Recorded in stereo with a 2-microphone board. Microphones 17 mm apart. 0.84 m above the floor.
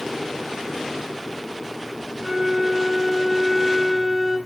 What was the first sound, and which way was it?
A flute, 50° right (ahead or behind).